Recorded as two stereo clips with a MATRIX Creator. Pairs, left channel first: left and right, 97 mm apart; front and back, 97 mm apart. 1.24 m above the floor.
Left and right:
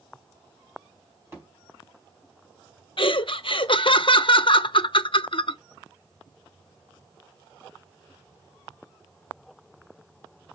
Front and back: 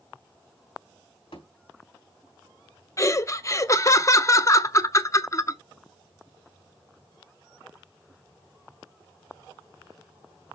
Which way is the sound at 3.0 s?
60° left.